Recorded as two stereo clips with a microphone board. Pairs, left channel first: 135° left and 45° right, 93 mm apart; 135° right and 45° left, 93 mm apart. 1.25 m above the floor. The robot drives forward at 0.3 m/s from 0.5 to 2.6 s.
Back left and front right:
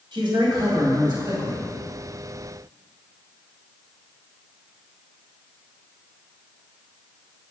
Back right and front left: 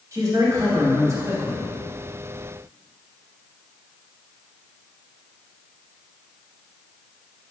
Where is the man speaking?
10° right, 2.5 m.